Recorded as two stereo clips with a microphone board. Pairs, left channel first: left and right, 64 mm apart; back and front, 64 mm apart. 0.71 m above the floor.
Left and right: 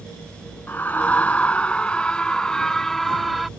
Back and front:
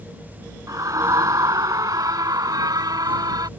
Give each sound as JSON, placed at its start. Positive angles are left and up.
{"t": 0.7, "sound": "a scream", "azimuth_deg": 30}